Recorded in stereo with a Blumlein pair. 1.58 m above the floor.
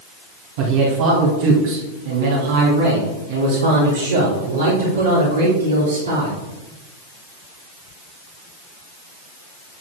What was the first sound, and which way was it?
A man speaking, 50° right.